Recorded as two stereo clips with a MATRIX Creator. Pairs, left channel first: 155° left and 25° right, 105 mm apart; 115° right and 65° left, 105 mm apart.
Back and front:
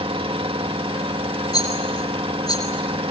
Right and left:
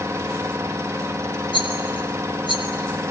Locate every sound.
0.0 s an engine running: 5° left, 1.9 m
1.5 s a rattle: 150° right, 6.5 m